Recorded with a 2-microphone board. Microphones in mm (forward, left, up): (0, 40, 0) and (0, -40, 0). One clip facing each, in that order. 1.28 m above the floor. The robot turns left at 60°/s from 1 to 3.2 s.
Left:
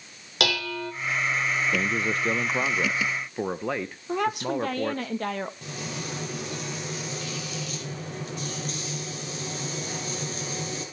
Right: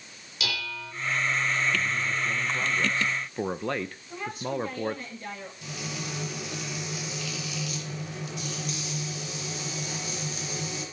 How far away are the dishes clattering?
About 3.5 m.